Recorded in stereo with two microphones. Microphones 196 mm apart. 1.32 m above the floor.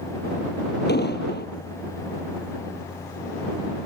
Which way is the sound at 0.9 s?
60° left (ahead or behind).